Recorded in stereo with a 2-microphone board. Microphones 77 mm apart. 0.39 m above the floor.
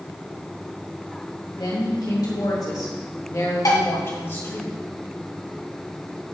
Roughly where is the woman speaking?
Left.